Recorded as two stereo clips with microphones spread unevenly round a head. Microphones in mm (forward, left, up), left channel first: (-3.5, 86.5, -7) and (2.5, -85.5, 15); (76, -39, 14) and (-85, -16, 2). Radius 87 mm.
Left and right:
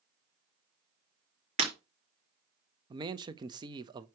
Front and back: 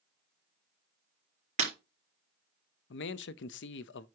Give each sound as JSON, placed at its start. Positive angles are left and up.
{"t": 1.6, "sound": "breaking glass", "azimuth_deg": -140, "distance_m": 4.0}
{"t": 2.9, "sound": "a man speaking", "azimuth_deg": -20, "distance_m": 0.6}